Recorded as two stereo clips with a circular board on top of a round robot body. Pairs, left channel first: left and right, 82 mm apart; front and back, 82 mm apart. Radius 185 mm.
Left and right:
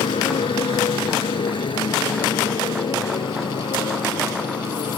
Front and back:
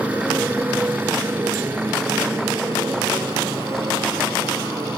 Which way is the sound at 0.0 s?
105° left.